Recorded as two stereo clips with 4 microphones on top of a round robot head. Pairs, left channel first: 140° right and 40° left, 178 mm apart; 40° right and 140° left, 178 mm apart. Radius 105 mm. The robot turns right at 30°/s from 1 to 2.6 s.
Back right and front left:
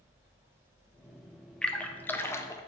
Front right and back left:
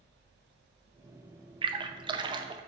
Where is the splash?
140° left, 0.6 m; by 2.6 s 170° left, 0.6 m.